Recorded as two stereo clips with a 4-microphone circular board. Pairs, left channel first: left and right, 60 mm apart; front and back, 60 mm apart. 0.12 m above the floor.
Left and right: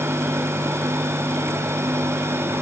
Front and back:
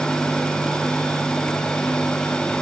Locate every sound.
Only background noise.